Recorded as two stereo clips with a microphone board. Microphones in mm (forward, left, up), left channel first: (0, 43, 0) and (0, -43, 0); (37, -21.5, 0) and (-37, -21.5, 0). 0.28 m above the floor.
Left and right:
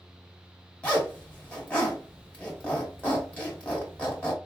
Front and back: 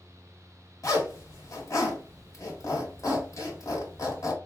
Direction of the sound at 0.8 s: 20° left.